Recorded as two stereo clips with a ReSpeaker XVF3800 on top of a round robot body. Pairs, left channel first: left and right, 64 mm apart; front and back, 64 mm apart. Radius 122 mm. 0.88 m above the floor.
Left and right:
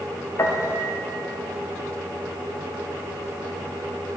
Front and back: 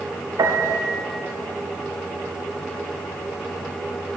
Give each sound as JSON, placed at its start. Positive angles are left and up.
{"t": 0.4, "sound": "a piano", "azimuth_deg": 140, "distance_m": 0.7}